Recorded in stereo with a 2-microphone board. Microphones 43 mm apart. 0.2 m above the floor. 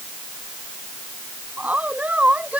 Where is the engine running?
I don't hear an engine running.